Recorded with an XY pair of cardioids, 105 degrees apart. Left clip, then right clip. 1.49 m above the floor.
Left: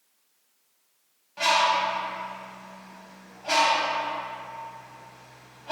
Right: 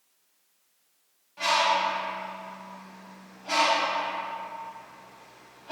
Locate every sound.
1.4 s a bird: 45° left, 1.8 m